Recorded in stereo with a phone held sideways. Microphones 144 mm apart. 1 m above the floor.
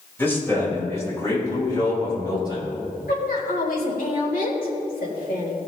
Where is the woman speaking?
85° left, 3.5 m.